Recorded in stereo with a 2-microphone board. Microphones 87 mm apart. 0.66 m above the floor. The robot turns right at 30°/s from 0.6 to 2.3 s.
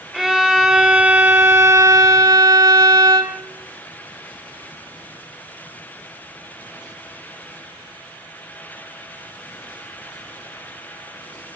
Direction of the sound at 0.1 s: 170° right.